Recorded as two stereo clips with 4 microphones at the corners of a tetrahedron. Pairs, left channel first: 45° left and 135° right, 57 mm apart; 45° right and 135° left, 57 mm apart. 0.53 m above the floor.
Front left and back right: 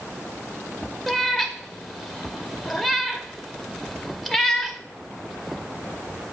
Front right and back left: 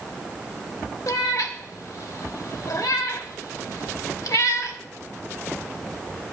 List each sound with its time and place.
1.1 s a cat meowing: 45° right, 0.8 m